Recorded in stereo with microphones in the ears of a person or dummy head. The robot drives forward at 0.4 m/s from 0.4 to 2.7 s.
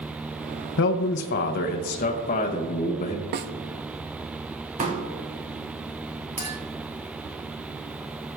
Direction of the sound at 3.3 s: 50° right (ahead or behind).